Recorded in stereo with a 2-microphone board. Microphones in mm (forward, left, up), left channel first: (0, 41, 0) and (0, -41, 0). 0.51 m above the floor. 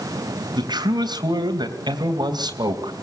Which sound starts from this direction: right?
A man speaking, at 0.6 s.